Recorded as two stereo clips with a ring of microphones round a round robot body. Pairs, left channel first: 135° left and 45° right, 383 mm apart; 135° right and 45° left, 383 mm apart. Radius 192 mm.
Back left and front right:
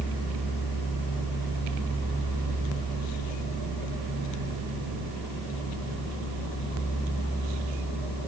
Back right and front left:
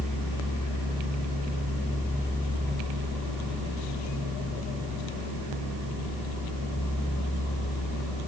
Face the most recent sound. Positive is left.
No sound to turn to.